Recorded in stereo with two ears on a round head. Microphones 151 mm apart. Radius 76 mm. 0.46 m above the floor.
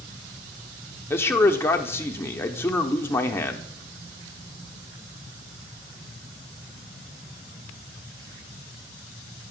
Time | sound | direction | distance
1.1 | a man speaking | 15° left (ahead or behind) | 0.7 m